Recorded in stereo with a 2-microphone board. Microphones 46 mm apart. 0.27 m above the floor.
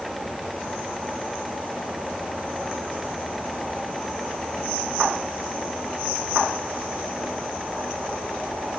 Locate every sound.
Only background noise.